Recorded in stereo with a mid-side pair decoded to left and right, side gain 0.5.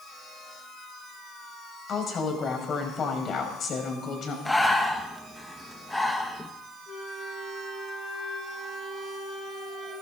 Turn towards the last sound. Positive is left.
turn(degrees=60)